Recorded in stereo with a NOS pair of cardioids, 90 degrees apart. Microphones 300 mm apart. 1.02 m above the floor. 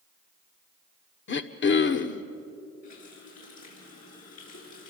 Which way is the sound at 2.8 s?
60° left.